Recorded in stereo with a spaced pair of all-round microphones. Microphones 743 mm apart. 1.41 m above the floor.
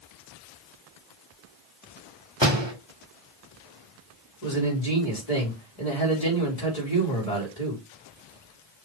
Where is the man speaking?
50° left (ahead or behind), 3.5 m.